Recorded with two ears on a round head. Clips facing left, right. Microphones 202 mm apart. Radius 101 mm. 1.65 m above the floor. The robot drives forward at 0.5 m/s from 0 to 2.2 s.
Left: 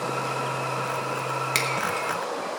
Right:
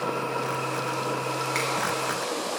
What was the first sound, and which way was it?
A finger snap, 60° left (ahead or behind).